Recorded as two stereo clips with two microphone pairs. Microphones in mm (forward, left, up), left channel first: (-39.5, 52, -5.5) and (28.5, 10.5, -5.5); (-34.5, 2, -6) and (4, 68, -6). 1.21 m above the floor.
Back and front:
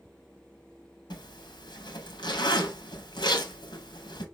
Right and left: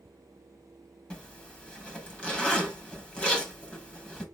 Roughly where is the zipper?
Behind.